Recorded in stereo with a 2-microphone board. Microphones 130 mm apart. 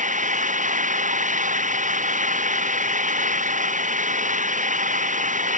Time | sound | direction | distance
0.0 | an engine running | 75° right (ahead or behind) | ?